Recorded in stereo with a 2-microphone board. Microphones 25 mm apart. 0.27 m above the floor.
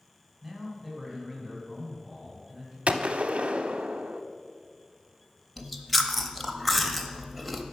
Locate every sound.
0.4 s a man speaking: 5° right (ahead or behind), 2.5 m; by 2.8 s 5° left (ahead or behind), 3.5 m
2.9 s a gunshot: 55° right (ahead or behind), 0.5 m
5.6 s chewing: 5° left (ahead or behind), 0.7 m